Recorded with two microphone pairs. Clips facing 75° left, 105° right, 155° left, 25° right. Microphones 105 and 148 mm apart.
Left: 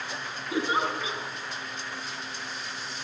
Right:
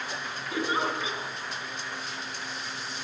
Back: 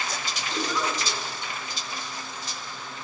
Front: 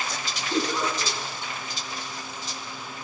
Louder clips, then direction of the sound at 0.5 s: Left 2 dB, front 3 dB; 20° left.